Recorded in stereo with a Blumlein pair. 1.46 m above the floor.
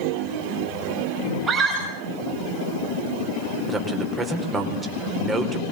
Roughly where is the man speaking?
Ahead.